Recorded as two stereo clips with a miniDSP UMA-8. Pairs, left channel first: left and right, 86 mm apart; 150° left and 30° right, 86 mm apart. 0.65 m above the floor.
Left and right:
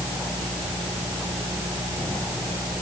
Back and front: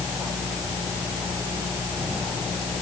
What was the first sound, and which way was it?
Only background noise.